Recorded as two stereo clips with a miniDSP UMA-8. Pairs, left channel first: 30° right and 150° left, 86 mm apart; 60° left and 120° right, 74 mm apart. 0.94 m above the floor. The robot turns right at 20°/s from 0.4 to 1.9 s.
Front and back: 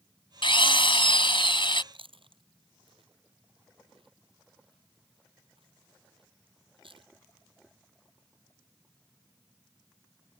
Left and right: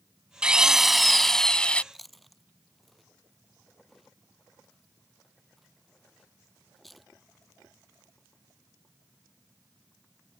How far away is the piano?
I don't hear a piano.